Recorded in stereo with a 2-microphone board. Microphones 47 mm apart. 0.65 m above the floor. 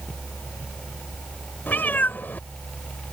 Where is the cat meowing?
45° left (ahead or behind).